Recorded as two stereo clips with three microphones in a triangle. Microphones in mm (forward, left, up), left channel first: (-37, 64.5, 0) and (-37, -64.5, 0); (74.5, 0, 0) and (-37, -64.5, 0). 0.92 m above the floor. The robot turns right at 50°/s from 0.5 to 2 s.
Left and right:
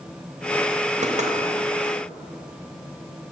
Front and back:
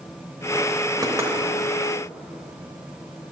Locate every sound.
1.0 s knocking: 95° right, 1.0 m; by 1.3 s 80° right, 1.0 m